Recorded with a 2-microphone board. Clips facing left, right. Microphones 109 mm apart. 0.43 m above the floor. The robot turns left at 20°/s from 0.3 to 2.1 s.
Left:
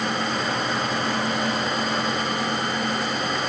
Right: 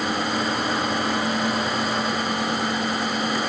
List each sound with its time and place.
Only background noise.